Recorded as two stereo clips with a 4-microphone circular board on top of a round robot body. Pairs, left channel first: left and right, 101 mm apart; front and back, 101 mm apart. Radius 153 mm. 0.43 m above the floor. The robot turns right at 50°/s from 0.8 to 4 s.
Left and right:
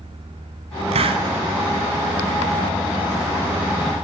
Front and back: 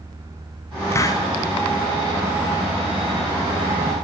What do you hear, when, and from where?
0.9 s a hiss: 65° right, 0.6 m; by 1.2 s 50° right, 0.6 m